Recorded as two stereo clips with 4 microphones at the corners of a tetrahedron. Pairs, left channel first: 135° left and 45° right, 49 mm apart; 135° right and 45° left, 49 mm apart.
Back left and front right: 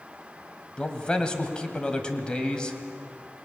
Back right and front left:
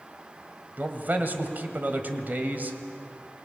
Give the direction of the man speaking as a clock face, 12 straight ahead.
10 o'clock.